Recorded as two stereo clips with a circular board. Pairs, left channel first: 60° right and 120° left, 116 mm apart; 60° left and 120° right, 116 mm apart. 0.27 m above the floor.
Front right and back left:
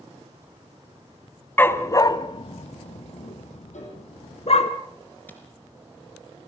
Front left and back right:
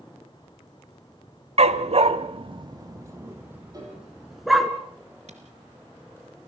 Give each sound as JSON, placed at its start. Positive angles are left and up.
{"t": 1.6, "sound": "a dog barking", "azimuth_deg": -130, "distance_m": 0.8}
{"t": 3.7, "sound": "a piano", "azimuth_deg": -60, "distance_m": 6.5}
{"t": 5.3, "sound": "a camera shutter", "azimuth_deg": -135, "distance_m": 2.5}